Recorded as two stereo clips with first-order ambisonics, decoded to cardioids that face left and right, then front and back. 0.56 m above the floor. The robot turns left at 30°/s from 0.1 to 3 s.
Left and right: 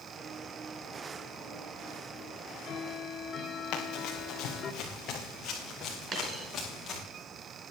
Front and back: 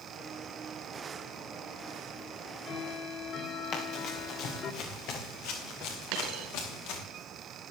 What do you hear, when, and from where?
2.3 s ticking: 60° left, 1.3 m; by 4.7 s 40° left, 1.3 m
3.7 s running footsteps: 50° left, 3.5 m; by 7.0 s 25° left, 6 m
6.1 s a dropped coin: 150° right, 3 m